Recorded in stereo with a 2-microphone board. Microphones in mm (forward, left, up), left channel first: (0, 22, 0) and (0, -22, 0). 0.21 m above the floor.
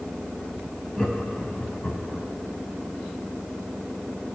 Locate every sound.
1.0 s laughter: 20° left (ahead or behind), 1.0 m; by 2.3 s 45° left (ahead or behind), 1.3 m